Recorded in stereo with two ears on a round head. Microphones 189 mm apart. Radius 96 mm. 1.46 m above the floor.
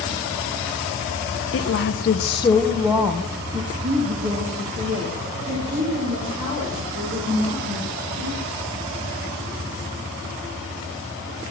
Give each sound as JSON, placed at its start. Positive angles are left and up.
{"t": 1.5, "sound": "a woman speaking", "side_deg": 70, "distance_m": 1.5}